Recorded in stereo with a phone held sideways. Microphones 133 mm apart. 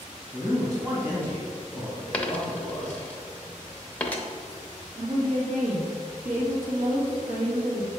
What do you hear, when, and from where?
0.3 s a man speaking: 25° right (ahead or behind), 1.8 m
2.1 s a dropped coin: 10° left (ahead or behind), 0.7 m
5.0 s a woman speaking: 80° right, 1.7 m